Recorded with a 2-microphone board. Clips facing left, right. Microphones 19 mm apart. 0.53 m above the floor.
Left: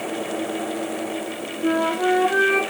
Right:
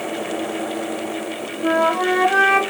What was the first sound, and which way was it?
A flute, 60° right (ahead or behind).